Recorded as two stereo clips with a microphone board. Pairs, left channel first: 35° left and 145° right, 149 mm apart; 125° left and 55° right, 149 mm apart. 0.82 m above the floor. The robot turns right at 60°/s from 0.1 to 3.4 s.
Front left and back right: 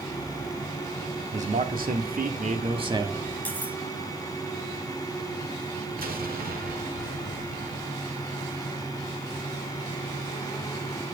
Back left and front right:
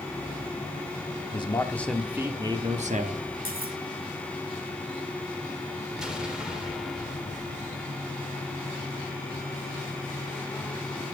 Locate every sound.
1.3 s a man speaking: 175° left, 1.7 m; by 3.2 s 70° right, 1.7 m
3.5 s cutlery clinking: 45° right, 1.7 m
6.0 s an explosion: 140° right, 1.9 m